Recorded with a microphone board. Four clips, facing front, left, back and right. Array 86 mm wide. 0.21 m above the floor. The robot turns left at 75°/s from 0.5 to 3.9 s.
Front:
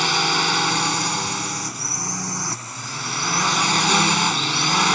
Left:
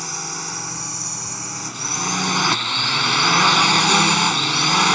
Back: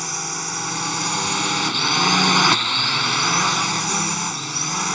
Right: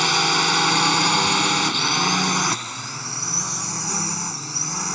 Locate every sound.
0.0 s a drone: 45° right; by 5.0 s 60° left